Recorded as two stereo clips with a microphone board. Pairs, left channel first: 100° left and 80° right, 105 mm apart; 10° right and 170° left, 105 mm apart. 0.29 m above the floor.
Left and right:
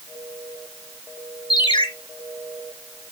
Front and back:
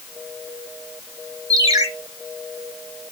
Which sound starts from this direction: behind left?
A ringtone, at 1.5 s.